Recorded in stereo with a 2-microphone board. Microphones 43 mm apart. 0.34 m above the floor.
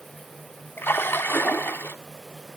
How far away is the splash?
About 1.1 m.